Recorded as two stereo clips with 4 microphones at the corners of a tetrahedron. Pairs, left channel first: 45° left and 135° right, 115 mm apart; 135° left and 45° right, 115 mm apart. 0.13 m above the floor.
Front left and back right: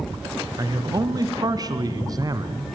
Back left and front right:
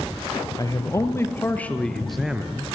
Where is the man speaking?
Straight behind, 1.8 m; by 2.7 s 110° right, 1.4 m.